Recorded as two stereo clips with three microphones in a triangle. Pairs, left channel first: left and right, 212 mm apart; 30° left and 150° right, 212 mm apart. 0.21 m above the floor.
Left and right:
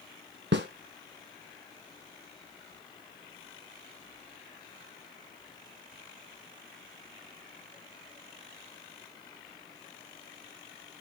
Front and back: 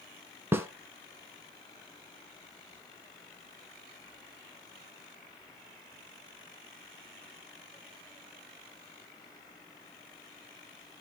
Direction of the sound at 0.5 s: 70° right.